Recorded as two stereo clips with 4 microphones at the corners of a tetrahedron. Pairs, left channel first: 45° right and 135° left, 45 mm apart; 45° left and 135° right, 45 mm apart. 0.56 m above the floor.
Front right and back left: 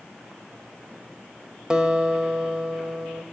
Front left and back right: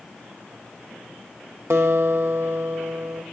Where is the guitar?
150° right, 1.6 m.